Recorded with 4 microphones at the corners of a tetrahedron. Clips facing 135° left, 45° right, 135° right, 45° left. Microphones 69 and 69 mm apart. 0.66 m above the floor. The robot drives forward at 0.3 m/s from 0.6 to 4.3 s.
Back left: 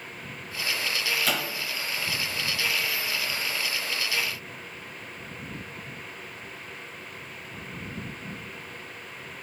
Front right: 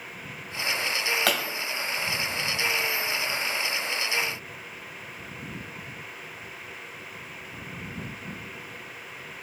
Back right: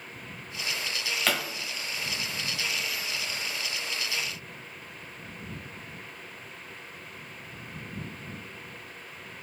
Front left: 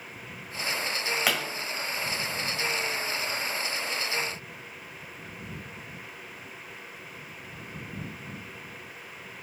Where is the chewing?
I don't hear chewing.